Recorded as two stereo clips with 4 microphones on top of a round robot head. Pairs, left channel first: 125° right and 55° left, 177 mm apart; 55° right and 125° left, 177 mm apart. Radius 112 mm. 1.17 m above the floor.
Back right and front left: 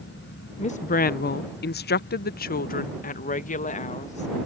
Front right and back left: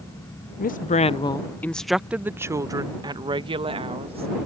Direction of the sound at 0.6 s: 80° right.